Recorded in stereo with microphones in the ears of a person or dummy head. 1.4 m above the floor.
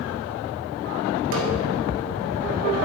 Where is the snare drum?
75° right (ahead or behind), 1.2 m.